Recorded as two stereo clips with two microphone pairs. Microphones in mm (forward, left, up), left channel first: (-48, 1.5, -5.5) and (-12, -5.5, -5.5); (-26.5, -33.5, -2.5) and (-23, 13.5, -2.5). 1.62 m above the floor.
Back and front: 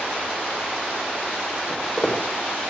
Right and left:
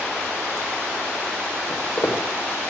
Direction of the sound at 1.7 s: 115° right.